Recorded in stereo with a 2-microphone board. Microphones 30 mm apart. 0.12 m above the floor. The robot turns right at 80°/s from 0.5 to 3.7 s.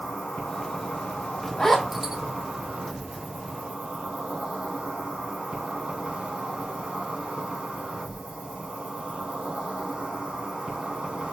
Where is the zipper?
20° left (ahead or behind), 0.8 m; by 2.2 s 25° right (ahead or behind), 0.8 m.